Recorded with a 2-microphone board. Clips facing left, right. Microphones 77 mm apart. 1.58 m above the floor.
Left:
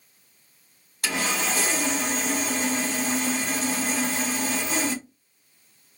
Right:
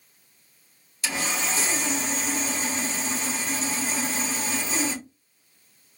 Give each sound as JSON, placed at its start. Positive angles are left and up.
{"t": 1.0, "sound": "sawing", "side_deg": 60, "distance_m": 2.0}